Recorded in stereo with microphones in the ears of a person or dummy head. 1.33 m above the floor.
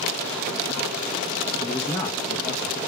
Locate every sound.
1.6 s a man speaking: 10° left (ahead or behind), 1.0 m